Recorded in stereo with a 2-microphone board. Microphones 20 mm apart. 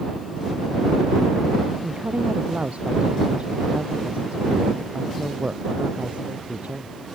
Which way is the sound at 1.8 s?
75° right (ahead or behind).